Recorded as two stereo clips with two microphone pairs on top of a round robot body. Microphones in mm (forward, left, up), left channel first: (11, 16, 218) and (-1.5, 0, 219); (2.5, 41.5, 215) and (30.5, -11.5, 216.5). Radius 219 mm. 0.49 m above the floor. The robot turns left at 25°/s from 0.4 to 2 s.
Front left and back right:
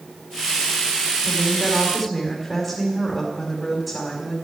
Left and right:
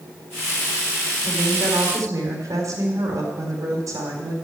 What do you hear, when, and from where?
1.2 s a woman speaking: 25° right, 4 m; by 4.3 s 45° right, 4 m